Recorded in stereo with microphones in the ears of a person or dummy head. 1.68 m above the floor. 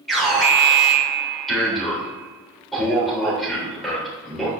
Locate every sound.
0.1 s an alarm: 5° left (ahead or behind), 3 m